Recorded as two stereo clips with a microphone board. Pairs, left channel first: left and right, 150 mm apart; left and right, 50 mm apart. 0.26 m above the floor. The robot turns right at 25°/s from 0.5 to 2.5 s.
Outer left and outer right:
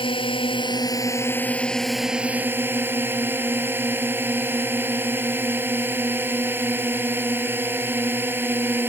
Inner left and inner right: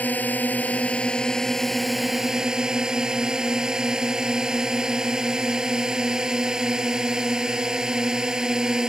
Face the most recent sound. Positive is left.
turn(degrees=-165)